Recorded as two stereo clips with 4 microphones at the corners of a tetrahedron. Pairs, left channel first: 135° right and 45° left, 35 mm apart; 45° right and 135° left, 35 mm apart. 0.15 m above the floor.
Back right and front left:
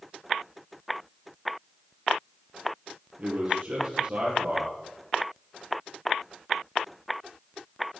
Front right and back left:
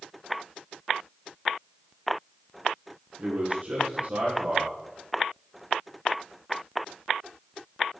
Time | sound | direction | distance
3.2 | a man speaking | 85° left | 4.5 m